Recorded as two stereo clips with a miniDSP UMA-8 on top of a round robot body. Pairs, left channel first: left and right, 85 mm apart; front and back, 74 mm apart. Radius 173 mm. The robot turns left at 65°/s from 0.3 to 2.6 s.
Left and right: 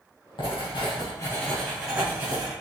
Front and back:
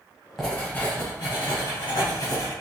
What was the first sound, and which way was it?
Writing, 85° left.